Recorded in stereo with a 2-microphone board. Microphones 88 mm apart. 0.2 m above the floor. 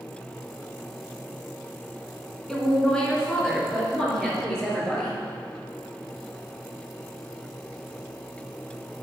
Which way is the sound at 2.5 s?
10° left (ahead or behind).